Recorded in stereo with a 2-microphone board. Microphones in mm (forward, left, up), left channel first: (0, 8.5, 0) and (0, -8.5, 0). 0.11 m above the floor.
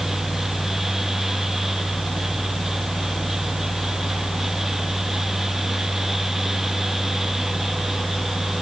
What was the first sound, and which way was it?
Only background noise.